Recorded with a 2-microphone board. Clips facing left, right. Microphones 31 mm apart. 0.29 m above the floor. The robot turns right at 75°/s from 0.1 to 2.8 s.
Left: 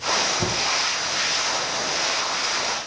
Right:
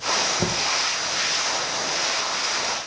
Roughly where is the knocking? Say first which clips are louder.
Even; right.